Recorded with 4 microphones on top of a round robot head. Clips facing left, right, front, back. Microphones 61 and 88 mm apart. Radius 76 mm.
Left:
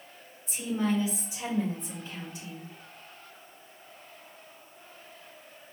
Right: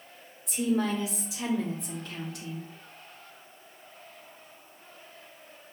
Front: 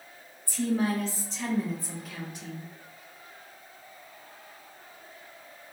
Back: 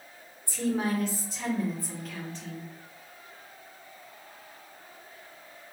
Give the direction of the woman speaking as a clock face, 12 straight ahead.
4 o'clock.